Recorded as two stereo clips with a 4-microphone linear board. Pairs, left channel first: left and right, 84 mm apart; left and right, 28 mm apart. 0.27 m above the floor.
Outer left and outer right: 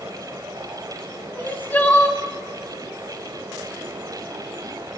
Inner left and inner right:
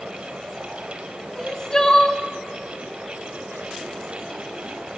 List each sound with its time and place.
1.4 s crying: 20° left (ahead or behind), 2 m